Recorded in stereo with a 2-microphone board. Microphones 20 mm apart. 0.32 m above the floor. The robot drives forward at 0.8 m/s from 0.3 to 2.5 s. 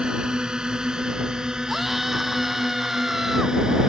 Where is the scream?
10° right (ahead or behind).